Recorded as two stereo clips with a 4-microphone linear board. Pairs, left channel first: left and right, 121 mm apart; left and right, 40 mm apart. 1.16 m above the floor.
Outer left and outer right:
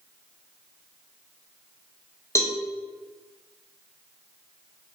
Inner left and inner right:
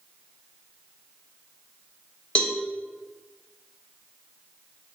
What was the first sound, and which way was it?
A cowbell, 25° left (ahead or behind).